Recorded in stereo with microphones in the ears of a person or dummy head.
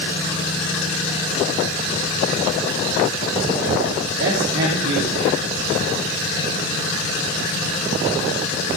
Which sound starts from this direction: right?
A man speaking, at 4.2 s.